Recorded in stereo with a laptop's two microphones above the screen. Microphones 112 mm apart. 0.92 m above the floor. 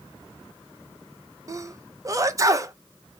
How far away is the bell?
No bell in this recording.